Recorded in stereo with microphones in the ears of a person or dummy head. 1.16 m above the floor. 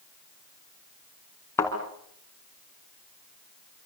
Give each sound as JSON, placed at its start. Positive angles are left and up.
{"t": 1.6, "sound": "a thud", "side_deg": 15, "distance_m": 4.5}